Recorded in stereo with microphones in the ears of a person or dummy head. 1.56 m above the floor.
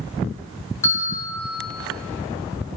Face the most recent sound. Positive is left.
turn(degrees=15)  # may be behind; listen again after turning